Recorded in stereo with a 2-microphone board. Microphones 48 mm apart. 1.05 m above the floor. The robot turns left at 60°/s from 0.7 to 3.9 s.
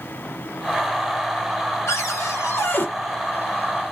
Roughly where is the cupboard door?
Left.